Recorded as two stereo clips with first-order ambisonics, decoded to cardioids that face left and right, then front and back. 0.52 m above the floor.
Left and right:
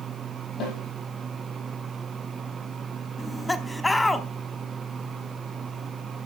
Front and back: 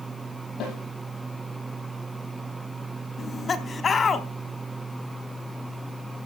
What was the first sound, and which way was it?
A snare drum, 40° left.